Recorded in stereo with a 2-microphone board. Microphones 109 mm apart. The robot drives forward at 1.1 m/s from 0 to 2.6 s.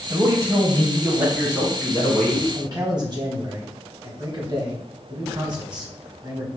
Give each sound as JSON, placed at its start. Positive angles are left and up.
{"t": 0.1, "sound": "a man speaking", "side_deg": -25, "distance_m": 1.0}
{"t": 2.5, "sound": "a man speaking", "side_deg": -45, "distance_m": 1.9}